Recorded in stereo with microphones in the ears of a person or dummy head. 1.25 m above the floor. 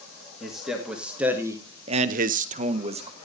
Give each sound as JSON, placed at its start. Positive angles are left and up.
{"t": 0.4, "sound": "a man speaking", "side_deg": 0, "distance_m": 2.0}